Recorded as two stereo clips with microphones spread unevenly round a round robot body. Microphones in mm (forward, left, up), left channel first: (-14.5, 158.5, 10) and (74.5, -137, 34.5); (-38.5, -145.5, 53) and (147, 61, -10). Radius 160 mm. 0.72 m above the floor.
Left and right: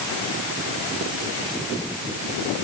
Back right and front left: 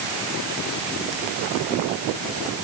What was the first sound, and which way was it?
Only background noise.